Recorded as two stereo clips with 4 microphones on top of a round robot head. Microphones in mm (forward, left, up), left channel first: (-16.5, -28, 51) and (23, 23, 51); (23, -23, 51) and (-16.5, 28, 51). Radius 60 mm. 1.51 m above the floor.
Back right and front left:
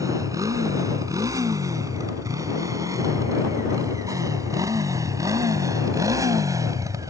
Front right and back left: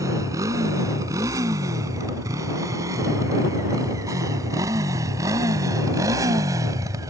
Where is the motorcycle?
90° left.